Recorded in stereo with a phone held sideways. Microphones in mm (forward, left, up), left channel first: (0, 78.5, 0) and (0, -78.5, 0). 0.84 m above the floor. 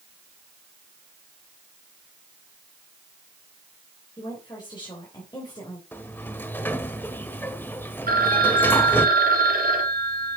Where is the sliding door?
15° left (ahead or behind), 1.0 m.